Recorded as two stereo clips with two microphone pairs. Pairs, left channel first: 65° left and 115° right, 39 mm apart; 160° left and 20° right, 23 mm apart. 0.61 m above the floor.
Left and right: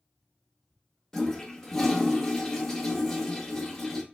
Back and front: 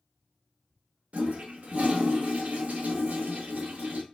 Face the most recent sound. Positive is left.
turn(degrees=-15)